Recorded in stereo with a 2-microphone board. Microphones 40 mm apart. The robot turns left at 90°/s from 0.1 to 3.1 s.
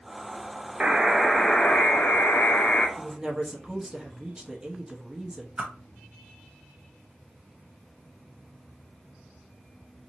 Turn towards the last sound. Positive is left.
turn(degrees=-25)  # may be behind; listen again after turning